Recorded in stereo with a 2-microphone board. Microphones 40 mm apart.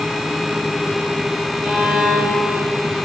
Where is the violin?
5° right (ahead or behind), 3 m.